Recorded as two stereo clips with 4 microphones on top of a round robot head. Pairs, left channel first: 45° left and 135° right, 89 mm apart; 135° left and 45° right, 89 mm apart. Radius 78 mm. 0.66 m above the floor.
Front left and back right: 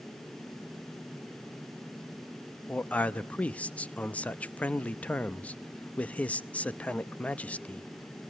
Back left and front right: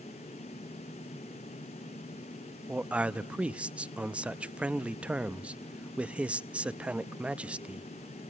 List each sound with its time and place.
2.7 s a man speaking: 5° left, 0.7 m